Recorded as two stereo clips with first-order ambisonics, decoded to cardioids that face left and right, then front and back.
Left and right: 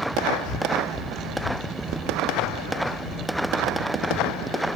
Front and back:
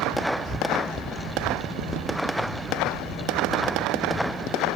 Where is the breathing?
80° left, 1.5 m.